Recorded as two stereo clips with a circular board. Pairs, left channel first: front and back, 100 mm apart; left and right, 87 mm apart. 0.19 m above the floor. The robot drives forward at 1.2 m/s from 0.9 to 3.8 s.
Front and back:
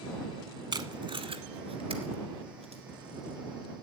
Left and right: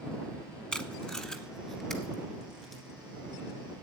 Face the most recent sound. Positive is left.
turn(degrees=175)